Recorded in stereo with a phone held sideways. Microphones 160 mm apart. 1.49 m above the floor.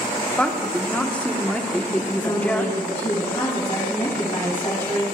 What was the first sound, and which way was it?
A woman speaking, 10° left (ahead or behind).